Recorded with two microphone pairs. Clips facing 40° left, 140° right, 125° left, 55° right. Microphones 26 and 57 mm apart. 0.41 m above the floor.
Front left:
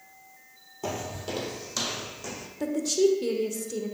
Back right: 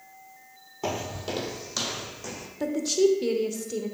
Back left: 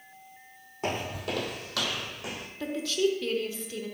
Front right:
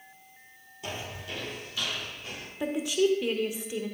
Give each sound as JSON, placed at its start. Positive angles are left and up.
{"t": 0.8, "sound": "footsteps", "azimuth_deg": 160, "distance_m": 0.6}
{"t": 2.6, "sound": "a woman speaking", "azimuth_deg": -95, "distance_m": 0.8}